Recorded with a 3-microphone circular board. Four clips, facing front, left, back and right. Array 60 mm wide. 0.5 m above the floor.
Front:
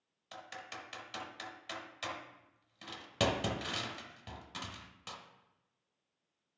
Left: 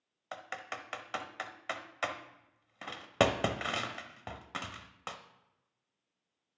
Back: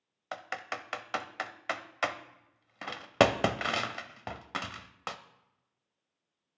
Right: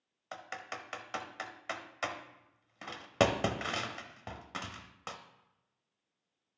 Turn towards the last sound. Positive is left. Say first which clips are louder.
# left 1 dB, back 9 dB
turn(degrees=175)